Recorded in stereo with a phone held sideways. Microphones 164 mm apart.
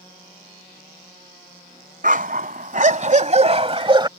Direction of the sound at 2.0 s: 60° right (ahead or behind).